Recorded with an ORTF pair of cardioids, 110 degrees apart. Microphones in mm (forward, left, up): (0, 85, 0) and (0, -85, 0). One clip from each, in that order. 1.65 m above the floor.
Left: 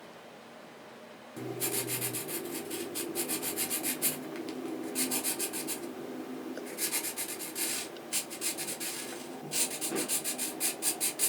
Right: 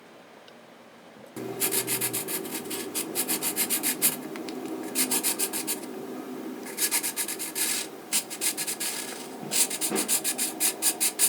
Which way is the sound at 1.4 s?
35° right.